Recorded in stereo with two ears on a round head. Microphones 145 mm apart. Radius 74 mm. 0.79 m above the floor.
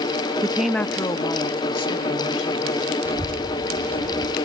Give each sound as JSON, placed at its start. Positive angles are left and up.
{"t": 0.4, "sound": "a woman speaking", "side_deg": -20, "distance_m": 0.5}
{"t": 3.0, "sound": "a child speaking", "side_deg": -15, "distance_m": 0.5}